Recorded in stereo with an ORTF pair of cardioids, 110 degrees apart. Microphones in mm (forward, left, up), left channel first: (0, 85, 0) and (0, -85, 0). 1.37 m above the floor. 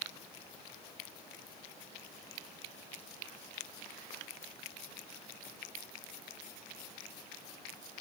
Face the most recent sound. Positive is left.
No sound to turn to.